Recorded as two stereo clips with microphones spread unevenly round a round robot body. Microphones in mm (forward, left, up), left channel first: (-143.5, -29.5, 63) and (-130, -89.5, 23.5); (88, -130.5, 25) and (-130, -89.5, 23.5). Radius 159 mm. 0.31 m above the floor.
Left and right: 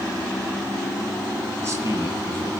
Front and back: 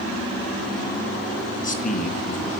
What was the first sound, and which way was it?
A man speaking, 65° right.